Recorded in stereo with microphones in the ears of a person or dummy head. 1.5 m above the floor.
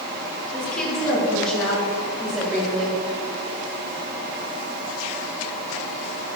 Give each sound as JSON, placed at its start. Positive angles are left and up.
{"t": 0.5, "sound": "a woman speaking", "side_deg": 10, "distance_m": 2.5}